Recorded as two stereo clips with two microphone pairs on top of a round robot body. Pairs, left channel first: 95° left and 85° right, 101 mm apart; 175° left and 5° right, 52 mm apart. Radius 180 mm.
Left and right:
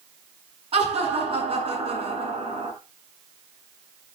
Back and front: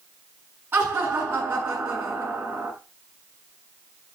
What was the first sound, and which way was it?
Laughter, 55° right.